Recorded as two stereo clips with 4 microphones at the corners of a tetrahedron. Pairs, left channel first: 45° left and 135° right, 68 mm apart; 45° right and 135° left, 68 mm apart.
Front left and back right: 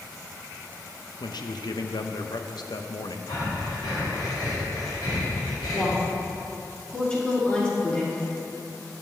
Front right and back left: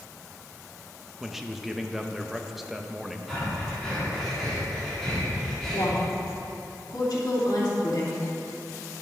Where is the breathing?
40° left, 3 m.